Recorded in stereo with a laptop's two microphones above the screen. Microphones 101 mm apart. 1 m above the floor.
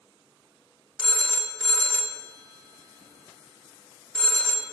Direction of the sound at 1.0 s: 5° left (ahead or behind).